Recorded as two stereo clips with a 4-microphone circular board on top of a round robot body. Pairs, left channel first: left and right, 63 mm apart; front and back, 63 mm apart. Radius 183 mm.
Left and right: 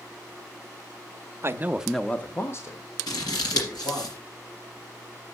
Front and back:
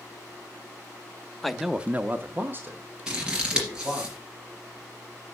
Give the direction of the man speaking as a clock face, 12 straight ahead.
3 o'clock.